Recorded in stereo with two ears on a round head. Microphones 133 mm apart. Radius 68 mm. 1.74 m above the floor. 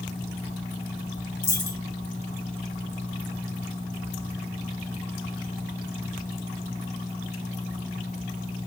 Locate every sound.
1.4 s a dropped coin: 15° left (ahead or behind), 2.5 m